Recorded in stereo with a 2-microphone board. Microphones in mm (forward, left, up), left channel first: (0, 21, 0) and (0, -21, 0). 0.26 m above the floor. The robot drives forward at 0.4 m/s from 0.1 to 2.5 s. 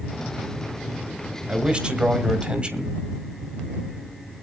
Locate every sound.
1.5 s a man speaking: 25° right (ahead or behind), 1.6 m